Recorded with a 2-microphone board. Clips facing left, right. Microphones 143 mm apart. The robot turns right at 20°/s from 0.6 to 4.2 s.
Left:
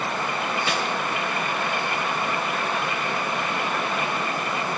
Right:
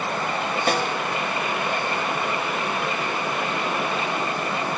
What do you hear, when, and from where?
0.7 s a snare drum: 45° right (ahead or behind), 1.1 m; by 0.9 s 50° right (ahead or behind), 1.1 m